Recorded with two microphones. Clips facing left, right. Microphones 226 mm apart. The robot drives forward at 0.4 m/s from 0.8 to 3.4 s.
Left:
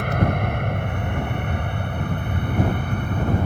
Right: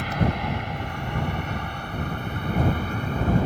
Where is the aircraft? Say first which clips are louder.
Left 3 dB; 55° left (ahead or behind).